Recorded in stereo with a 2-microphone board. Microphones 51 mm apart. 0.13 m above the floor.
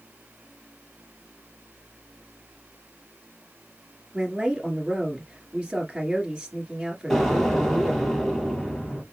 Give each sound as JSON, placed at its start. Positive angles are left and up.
{"t": 4.1, "sound": "a woman speaking", "side_deg": -15, "distance_m": 1.9}
{"t": 7.1, "sound": "an explosion", "side_deg": 5, "distance_m": 3.0}